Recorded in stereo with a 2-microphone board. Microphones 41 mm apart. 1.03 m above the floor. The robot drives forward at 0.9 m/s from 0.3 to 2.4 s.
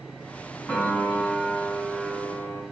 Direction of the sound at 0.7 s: 40° left (ahead or behind).